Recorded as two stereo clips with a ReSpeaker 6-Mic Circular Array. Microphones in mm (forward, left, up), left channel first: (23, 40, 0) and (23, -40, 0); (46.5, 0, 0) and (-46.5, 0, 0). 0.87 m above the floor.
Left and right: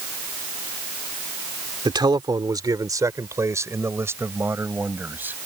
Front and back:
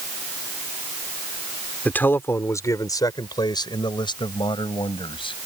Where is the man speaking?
70° right; by 5.4 s 25° right.